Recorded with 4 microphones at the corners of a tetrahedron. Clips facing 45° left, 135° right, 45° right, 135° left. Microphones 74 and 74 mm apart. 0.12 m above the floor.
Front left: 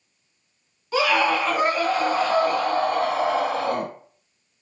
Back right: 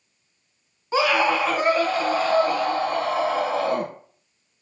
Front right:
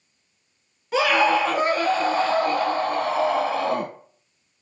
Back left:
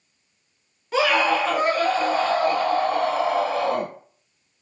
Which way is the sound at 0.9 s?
130° right.